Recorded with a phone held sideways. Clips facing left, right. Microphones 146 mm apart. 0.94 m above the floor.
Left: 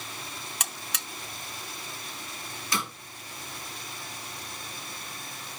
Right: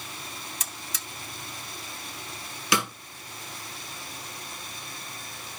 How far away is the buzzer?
About 0.8 m.